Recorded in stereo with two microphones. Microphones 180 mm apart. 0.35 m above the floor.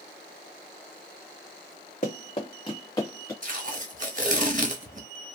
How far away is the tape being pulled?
About 0.8 m.